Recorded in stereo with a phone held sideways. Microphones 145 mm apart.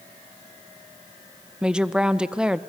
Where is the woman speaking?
5° right (ahead or behind), 0.6 m.